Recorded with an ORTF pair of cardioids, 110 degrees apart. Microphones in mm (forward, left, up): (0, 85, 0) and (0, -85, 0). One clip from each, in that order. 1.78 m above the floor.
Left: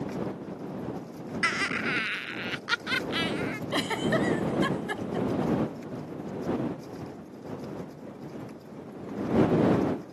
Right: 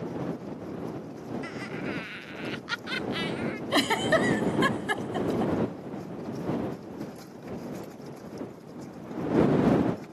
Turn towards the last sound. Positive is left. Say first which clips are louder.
# right 5 dB
turn(degrees=-30)